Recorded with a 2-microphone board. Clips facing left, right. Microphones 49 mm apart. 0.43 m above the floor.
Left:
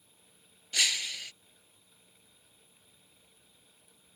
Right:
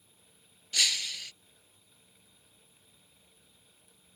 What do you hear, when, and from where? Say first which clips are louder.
0.7 s breaking glass: even; 15° left (ahead or behind)